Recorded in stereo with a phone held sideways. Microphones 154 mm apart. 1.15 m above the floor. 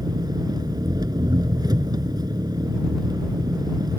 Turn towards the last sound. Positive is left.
turn(degrees=-25)  # may be behind; listen again after turning